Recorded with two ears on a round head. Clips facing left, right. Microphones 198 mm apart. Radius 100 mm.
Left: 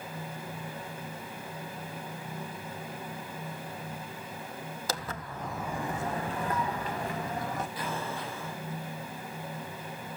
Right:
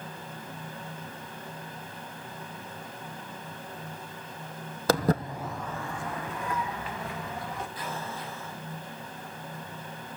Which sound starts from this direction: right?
Footsteps, at 4.9 s.